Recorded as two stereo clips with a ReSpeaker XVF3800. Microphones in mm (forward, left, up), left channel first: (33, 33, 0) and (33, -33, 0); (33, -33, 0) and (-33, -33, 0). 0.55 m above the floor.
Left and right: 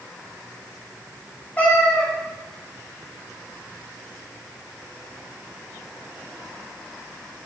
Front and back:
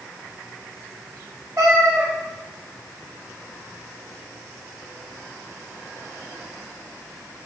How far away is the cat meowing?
About 0.8 m.